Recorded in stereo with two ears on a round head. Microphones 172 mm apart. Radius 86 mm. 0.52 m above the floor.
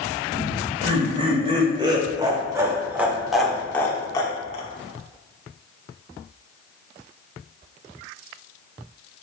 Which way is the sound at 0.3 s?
40° right (ahead or behind).